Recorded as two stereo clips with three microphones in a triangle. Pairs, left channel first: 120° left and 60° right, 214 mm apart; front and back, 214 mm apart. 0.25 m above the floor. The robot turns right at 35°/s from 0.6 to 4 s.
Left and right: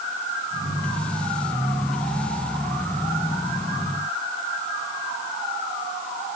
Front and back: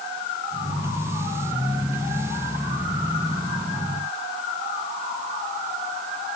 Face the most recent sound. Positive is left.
No sound to turn to.